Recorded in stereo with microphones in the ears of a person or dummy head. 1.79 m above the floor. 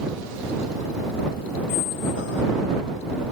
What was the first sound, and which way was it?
A squeak, 75° left (ahead or behind).